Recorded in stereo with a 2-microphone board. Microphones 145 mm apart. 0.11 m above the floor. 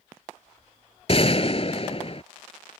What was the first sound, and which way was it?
A gunshot, 45° left (ahead or behind).